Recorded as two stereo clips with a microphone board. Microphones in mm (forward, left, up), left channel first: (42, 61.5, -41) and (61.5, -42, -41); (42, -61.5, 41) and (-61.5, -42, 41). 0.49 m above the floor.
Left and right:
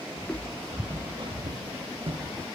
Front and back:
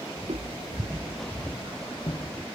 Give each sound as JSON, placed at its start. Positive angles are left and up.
{"t": 0.2, "sound": "footsteps", "azimuth_deg": 170, "distance_m": 1.3}